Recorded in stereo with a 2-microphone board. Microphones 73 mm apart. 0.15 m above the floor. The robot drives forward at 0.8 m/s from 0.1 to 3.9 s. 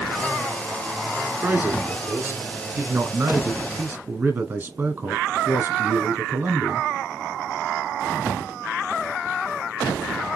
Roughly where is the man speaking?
Right.